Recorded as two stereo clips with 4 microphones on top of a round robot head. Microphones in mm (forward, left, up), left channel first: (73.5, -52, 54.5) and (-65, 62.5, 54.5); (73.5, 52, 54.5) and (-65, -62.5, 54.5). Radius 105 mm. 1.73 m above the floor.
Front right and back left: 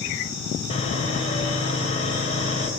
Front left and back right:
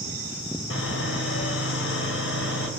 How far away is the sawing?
About 4 m.